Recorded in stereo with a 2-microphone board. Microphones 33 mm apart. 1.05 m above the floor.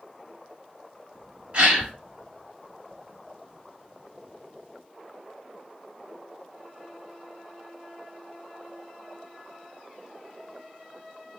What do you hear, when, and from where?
1.5 s a gasp: 35° right (ahead or behind), 1.8 m